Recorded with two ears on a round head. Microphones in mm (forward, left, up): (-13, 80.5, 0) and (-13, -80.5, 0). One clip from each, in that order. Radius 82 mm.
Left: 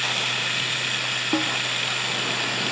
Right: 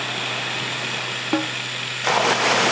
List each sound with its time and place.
0.0 s running water: 20° left (ahead or behind)
1.3 s a snare drum: 65° right (ahead or behind)